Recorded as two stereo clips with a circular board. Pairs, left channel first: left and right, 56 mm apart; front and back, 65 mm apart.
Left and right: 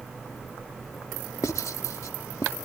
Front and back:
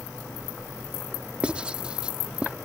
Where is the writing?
105° left.